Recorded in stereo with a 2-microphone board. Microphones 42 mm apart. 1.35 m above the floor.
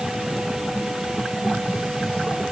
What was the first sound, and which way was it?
Only background noise.